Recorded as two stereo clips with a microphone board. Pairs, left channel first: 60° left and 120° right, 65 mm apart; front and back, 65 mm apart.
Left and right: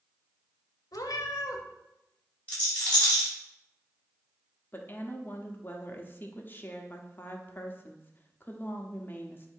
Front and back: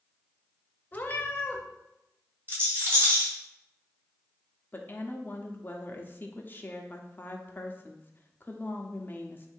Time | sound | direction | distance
0.9 | a cat meowing | 60° left | 0.8 m
2.5 | a rattle | 125° left | 3 m
4.7 | a woman speaking | 30° left | 0.8 m